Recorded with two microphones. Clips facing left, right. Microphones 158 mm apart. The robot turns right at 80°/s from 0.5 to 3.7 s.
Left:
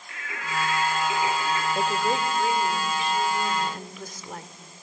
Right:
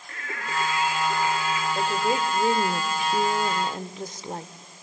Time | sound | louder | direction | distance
0.1 | singing | right 1 dB | 45° right | 4 m
1.8 | a woman speaking | right 2 dB | 165° left | 1.2 m